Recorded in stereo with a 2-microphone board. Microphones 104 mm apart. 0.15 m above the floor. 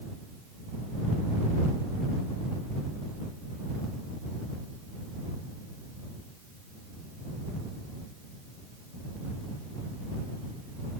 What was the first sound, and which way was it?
Only background noise.